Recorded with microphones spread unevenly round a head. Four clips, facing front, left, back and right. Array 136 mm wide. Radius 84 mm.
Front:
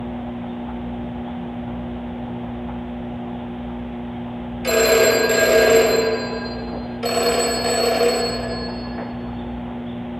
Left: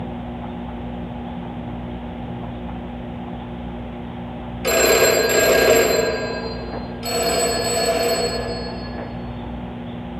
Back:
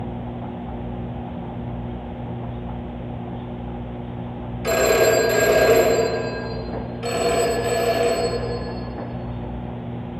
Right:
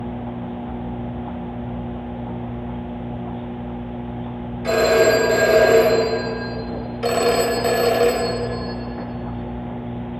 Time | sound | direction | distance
4.6 | a phone ringing | 80° left | 2.5 m
7.0 | a phone ringing | 55° right | 1.8 m